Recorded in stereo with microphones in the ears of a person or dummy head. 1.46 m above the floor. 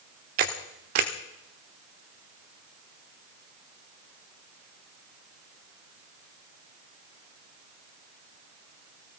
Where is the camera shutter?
45° right (ahead or behind), 1.4 m.